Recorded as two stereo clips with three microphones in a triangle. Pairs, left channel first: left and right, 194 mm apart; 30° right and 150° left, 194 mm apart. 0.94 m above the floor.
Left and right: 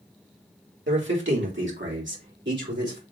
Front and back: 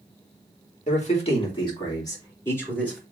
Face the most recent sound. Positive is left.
turn(degrees=-115)